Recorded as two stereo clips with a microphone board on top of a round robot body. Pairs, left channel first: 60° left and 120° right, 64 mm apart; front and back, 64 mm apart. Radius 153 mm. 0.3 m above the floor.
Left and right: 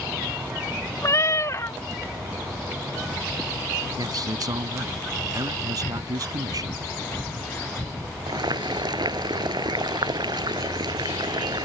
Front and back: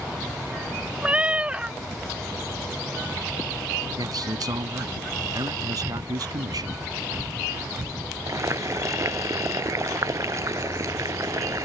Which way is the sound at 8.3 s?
135° right.